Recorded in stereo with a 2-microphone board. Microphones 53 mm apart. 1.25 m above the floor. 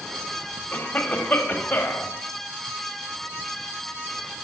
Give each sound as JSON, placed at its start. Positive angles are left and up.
{"t": 0.7, "sound": "a cough", "side_deg": 40, "distance_m": 0.9}